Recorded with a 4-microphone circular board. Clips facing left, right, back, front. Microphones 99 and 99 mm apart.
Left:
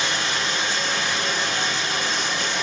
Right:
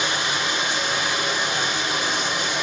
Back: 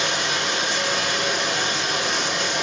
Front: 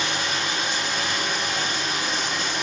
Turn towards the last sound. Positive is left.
turn(degrees=-165)